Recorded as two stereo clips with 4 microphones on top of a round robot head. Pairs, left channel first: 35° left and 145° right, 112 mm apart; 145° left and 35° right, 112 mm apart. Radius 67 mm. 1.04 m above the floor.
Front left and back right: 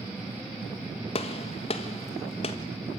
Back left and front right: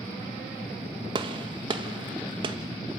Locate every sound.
1.1 s a gunshot: 10° left, 1.6 m